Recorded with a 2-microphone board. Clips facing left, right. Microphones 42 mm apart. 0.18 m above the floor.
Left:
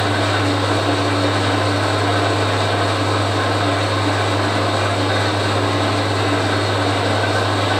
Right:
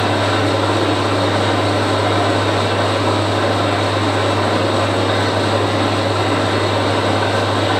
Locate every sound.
0.0 s an engine running: 50° right (ahead or behind), 2.5 m